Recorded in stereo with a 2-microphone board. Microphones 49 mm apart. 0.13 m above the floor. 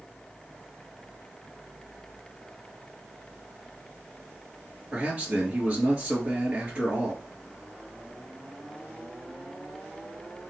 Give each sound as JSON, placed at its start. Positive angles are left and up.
{"t": 4.9, "sound": "a man speaking", "side_deg": -25, "distance_m": 2.0}